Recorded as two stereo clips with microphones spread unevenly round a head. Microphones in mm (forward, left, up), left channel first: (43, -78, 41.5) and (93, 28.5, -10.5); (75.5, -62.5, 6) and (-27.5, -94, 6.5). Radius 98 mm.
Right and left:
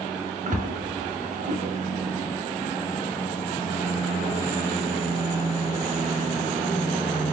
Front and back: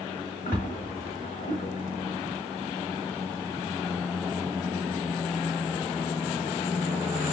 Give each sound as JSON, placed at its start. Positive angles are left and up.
{"t": 0.5, "sound": "a splash", "azimuth_deg": 60, "distance_m": 2.5}